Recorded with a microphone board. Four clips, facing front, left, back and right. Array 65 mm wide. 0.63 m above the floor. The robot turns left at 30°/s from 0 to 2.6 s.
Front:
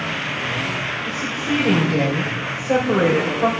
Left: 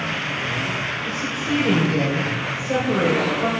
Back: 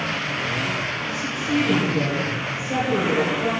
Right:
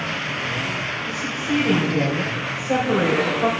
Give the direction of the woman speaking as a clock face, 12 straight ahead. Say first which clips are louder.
Right 1 dB, front 2 dB; 11 o'clock.